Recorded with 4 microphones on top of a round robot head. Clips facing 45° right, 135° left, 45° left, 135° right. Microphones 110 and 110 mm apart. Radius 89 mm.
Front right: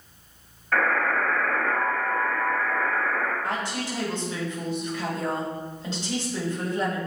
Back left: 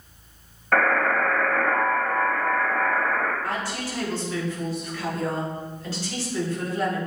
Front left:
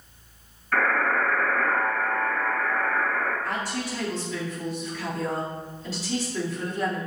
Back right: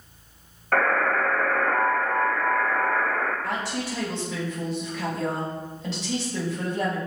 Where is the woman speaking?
115° right, 3 m.